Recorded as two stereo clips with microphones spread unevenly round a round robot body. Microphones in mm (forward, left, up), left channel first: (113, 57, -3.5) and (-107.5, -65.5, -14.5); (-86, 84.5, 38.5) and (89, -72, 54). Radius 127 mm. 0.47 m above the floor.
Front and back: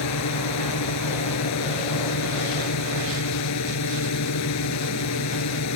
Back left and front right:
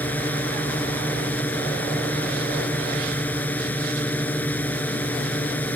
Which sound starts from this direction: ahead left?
A drone, at 0.0 s.